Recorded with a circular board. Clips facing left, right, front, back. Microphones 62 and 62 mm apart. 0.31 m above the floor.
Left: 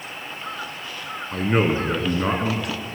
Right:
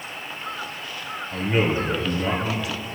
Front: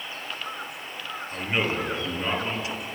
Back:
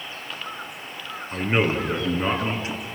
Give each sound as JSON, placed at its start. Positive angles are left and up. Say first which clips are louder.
{"t": 1.3, "sound": "a man speaking", "louder": "left 2 dB, back 5 dB", "azimuth_deg": 120, "distance_m": 4.5}